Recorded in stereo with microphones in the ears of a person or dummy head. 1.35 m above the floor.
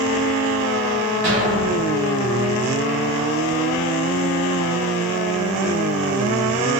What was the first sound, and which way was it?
An explosion, 45° right (ahead or behind).